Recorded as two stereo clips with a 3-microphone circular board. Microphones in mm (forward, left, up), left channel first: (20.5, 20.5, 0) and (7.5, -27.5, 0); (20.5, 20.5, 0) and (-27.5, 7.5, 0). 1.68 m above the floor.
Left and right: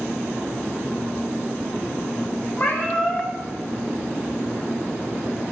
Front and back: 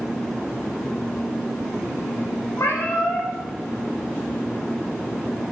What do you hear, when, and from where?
2.6 s a cat meowing: 25° left, 4.5 m